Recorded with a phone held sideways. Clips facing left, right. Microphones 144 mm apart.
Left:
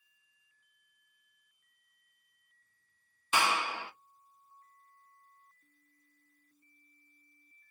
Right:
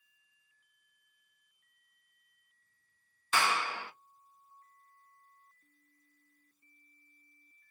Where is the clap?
15° left (ahead or behind), 0.5 m.